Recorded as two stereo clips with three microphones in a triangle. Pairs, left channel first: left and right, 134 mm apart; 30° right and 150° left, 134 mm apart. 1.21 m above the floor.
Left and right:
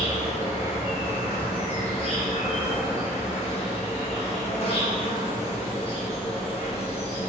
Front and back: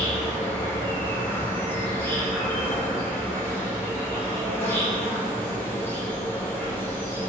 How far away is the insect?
About 0.9 m.